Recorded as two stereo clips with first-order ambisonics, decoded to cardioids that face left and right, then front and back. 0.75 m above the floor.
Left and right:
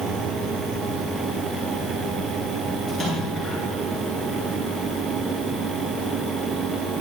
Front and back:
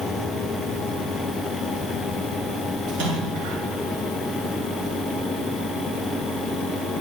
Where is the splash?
170° right, 9 m.